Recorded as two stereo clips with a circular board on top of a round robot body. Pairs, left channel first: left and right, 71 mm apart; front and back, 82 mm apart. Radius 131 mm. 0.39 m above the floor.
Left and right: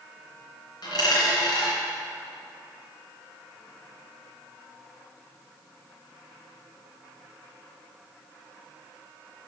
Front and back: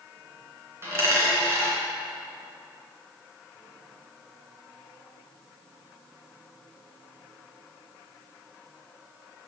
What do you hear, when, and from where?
0.8 s a dropped coin: 120° left, 3 m